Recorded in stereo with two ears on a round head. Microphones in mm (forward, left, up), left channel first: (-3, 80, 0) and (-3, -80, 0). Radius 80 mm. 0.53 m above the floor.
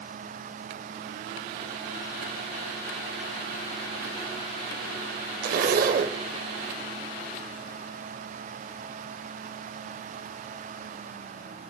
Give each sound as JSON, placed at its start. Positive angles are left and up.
{"t": 5.4, "sound": "a zipper", "side_deg": -50, "distance_m": 0.6}